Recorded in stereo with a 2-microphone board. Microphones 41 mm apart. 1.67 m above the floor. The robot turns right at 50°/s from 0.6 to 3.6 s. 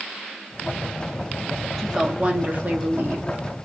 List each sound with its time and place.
1.8 s a woman speaking: 175° right, 1.0 m; by 3.3 s 100° right, 1.0 m